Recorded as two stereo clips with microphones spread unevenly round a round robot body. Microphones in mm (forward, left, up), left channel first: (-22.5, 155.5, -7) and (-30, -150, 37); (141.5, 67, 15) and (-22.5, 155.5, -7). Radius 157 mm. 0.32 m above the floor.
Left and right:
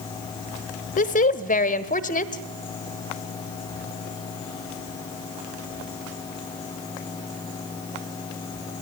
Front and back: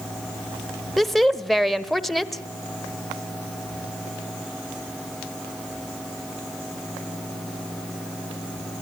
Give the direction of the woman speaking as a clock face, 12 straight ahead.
10 o'clock.